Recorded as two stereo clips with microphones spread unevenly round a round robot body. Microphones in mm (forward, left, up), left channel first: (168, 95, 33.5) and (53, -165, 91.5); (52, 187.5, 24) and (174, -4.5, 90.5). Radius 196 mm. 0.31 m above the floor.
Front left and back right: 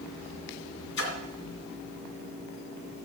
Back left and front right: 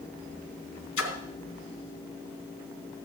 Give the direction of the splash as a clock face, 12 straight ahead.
8 o'clock.